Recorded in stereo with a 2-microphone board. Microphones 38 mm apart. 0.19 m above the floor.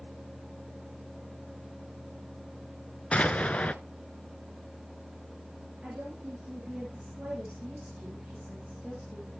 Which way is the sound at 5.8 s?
25° right (ahead or behind).